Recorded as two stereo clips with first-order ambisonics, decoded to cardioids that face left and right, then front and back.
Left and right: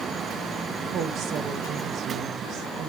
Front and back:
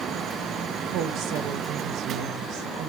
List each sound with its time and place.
0.9 s a woman speaking: 140° right, 1.0 m